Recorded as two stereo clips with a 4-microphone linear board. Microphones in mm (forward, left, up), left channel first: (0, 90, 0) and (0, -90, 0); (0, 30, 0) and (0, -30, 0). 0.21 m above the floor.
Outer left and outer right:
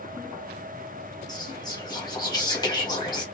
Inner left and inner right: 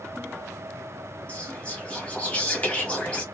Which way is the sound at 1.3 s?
20° left (ahead or behind).